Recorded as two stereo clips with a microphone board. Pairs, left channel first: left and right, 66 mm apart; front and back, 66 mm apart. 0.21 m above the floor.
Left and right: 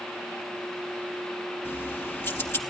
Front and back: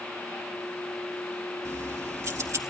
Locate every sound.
1.6 s keys jangling: 140° left, 3.5 m